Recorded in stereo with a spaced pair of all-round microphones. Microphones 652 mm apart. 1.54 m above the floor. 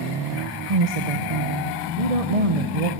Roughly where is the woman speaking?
Right.